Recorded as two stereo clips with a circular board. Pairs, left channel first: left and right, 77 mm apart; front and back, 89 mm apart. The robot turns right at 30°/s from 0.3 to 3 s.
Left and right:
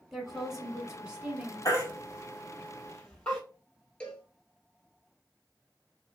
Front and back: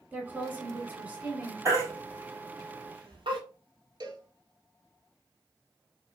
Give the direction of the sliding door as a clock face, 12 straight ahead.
No sliding door in this recording.